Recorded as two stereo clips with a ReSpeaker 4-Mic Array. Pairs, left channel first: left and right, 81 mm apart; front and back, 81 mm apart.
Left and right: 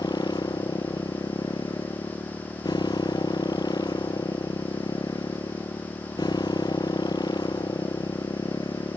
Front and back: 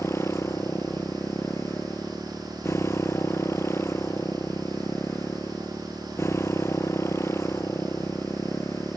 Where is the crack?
I don't hear a crack.